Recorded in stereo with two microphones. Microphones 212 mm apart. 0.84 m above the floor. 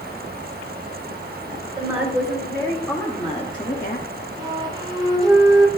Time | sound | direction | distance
1.8 | a woman speaking | 20° right (ahead or behind) | 3 m
4.4 | a flute | 20° right (ahead or behind) | 1.0 m